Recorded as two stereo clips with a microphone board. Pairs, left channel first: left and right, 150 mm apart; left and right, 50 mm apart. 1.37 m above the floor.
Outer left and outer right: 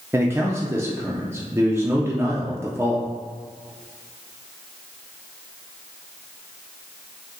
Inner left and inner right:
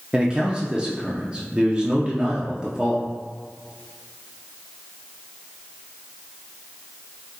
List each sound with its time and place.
0.1 s a man speaking: 15° right (ahead or behind), 0.6 m